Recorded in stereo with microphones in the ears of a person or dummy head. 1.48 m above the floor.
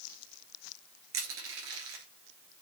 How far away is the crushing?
About 2.5 m.